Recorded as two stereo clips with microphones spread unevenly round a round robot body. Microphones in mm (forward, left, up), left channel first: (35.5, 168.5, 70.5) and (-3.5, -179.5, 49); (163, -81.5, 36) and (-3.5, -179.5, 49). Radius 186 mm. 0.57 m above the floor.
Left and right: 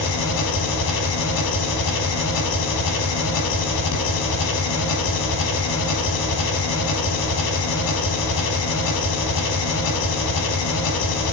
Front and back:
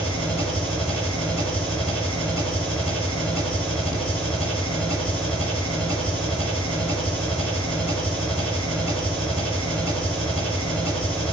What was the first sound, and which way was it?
An engine running, 120° left.